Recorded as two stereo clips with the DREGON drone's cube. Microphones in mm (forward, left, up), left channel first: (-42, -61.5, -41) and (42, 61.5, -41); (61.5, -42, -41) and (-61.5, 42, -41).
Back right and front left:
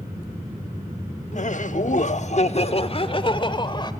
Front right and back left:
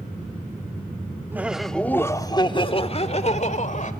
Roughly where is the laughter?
Behind right.